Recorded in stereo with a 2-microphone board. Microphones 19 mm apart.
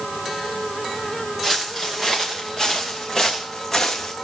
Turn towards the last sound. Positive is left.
turn(degrees=15)  # may be behind; listen again after turning